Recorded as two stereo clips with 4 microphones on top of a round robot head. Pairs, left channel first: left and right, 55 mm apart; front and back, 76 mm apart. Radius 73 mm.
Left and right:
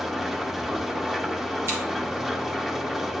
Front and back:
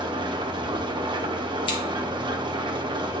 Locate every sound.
0.0 s an engine running: 175° right, 1.0 m
1.7 s scissors: 35° right, 1.7 m